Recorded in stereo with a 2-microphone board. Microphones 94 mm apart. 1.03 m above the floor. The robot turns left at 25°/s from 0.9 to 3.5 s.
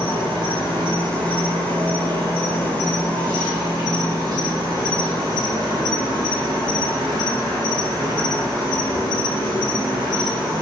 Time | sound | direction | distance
0.0 | an insect | 70° right | 1.0 m